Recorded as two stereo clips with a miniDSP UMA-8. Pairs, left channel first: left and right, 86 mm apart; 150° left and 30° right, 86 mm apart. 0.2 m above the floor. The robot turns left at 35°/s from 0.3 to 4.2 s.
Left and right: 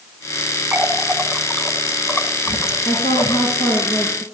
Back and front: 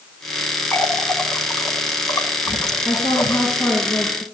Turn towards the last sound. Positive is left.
turn(degrees=85)